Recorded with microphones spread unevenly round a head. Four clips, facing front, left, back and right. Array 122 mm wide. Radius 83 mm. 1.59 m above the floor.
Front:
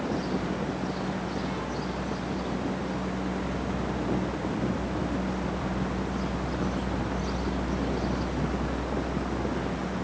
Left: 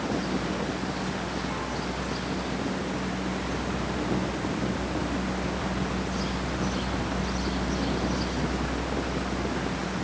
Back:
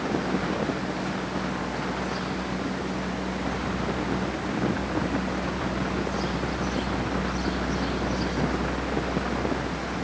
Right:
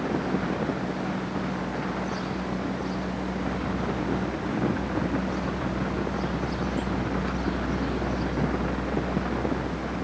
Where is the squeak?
I don't hear a squeak.